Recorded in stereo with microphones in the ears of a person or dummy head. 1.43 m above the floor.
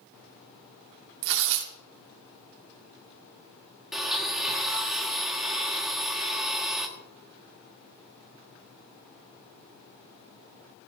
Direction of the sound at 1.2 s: 70° right (ahead or behind).